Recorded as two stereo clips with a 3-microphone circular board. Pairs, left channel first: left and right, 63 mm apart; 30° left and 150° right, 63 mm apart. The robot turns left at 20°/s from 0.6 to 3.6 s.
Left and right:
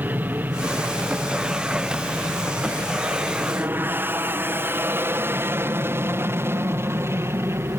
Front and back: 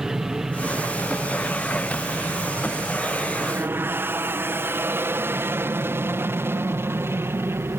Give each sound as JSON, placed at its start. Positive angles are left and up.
{"t": 0.0, "sound": "an aircraft", "azimuth_deg": -75}